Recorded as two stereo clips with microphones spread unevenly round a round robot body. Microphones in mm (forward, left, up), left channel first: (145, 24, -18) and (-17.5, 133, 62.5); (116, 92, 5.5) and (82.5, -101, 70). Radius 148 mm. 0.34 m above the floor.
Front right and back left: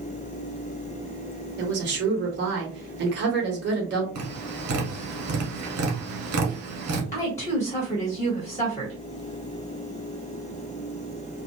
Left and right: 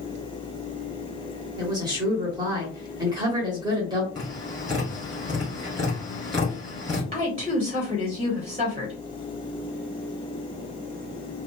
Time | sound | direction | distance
1.6 | a woman speaking | 170° left | 0.9 m
4.2 | tapping | 170° left | 0.9 m
7.1 | a woman speaking | 25° right | 1.3 m